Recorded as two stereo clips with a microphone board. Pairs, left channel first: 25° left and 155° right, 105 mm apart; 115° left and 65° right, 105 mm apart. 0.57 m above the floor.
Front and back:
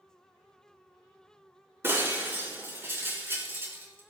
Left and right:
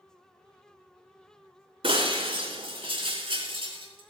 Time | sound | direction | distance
1.8 | breaking glass | 90° right | 4.5 m